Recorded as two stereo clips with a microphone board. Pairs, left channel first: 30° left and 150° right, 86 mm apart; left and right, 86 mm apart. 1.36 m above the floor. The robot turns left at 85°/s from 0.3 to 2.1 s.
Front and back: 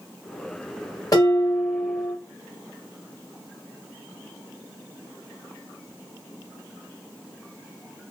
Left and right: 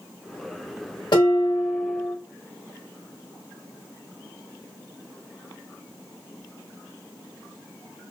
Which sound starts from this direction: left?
Dishes clattering, at 1.1 s.